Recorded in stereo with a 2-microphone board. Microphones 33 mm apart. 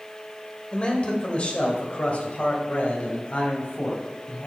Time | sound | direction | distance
0.7 | a man speaking | 35° left (ahead or behind) | 2 m